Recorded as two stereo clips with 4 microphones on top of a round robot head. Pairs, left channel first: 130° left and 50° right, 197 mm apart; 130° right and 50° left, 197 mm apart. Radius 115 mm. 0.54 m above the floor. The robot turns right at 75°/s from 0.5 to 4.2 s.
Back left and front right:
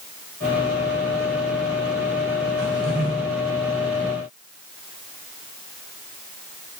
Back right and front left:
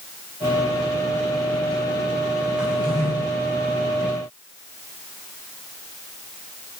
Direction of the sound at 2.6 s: 35° right.